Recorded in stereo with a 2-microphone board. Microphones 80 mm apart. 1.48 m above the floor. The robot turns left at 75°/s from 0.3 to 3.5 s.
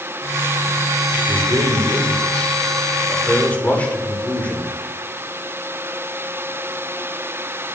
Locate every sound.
1.3 s a man speaking: 30° right, 6.5 m; by 4.7 s 160° left, 6.5 m